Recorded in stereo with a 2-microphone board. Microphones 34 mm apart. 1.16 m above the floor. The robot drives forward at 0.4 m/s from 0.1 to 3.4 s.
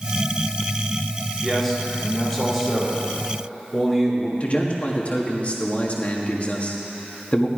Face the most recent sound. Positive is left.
turn(degrees=40)  # may be behind; listen again after turning